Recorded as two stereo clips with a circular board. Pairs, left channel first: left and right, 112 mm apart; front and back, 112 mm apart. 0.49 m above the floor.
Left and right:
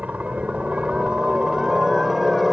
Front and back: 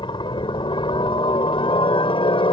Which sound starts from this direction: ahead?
A helicopter, at 0.0 s.